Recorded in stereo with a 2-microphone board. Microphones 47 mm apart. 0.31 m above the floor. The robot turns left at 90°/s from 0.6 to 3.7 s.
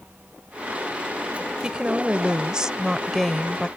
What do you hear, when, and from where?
1.6 s a woman speaking: 15° right (ahead or behind); by 3.7 s 20° left (ahead or behind)